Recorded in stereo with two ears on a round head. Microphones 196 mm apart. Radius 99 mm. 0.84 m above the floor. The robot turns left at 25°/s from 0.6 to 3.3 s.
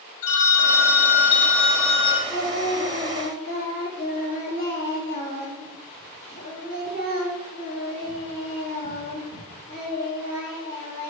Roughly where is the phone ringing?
Left.